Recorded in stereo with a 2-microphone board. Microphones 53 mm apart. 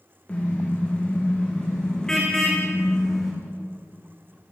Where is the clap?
I don't hear a clap.